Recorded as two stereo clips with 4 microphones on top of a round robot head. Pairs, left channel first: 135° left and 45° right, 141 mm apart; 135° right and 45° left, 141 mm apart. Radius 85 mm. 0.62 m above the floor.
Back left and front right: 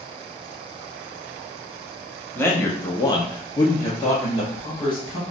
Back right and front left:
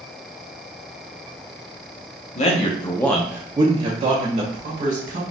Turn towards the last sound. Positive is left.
turn(degrees=60)